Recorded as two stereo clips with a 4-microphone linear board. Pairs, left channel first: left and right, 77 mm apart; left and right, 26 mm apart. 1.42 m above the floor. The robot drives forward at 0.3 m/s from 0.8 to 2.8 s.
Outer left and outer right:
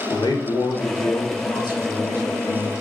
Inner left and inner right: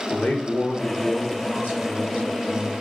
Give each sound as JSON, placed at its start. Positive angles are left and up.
{"t": 0.1, "sound": "a man speaking", "side_deg": 65, "distance_m": 0.8}